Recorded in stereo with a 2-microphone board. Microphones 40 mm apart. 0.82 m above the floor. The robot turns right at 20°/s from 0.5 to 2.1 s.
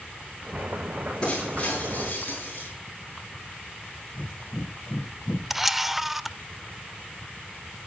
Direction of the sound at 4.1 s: 55° left (ahead or behind).